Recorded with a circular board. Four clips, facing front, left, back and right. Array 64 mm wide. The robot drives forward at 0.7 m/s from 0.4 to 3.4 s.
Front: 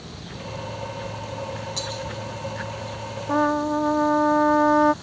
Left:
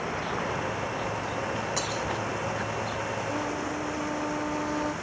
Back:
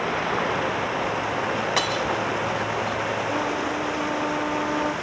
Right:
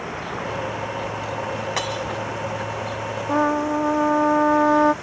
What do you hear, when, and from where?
0.0 s running water: 175° right
1.8 s breaking glass: 150° right
3.3 s a trumpet: 50° right; by 4.9 s 55° right